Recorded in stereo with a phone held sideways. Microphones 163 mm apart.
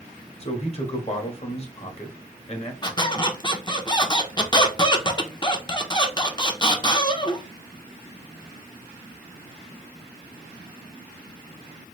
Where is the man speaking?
40° left (ahead or behind), 1.0 m.